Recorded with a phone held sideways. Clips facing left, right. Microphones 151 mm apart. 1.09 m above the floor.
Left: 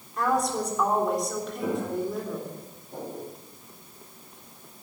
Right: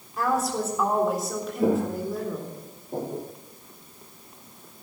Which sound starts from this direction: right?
Footsteps, at 1.6 s.